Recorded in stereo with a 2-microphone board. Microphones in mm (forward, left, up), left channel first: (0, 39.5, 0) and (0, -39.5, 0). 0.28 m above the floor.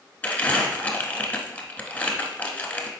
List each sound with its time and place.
0.2 s crumpling: 20° left (ahead or behind), 0.7 m